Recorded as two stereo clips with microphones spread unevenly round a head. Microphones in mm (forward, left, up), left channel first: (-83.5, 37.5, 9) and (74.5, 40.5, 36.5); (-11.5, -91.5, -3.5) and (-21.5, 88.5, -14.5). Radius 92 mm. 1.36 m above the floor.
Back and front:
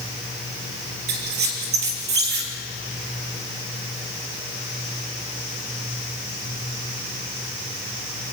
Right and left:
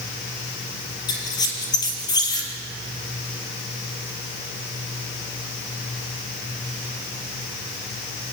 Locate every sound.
1.1 s a squeak: 20° right, 3.5 m